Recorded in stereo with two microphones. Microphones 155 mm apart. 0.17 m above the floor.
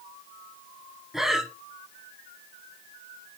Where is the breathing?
5° right (ahead or behind), 0.6 m.